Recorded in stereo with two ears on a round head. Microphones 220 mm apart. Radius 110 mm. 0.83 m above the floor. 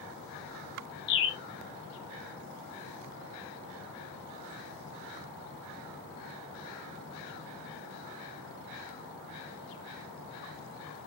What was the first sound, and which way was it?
A bird, 45° left (ahead or behind).